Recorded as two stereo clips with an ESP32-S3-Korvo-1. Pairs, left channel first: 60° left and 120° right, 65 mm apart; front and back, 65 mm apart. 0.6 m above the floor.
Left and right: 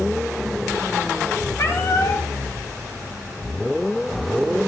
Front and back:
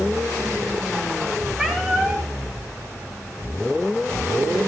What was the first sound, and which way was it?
A cat meowing, 100° left.